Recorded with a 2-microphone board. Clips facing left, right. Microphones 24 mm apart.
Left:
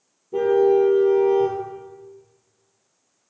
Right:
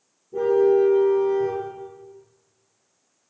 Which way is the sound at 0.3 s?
60° left (ahead or behind).